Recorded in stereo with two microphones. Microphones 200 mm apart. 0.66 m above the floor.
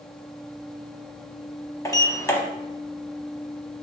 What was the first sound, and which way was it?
A sliding door, 15° left (ahead or behind).